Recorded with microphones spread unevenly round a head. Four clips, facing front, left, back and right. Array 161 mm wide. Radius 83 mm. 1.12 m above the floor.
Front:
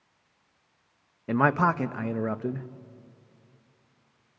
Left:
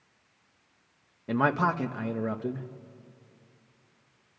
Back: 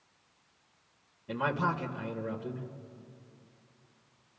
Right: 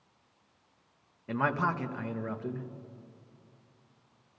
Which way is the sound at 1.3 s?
35° left.